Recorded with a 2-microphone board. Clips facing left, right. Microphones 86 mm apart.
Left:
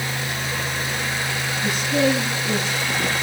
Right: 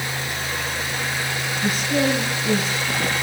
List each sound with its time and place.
1.6 s a man speaking: 40° right (ahead or behind), 9.5 m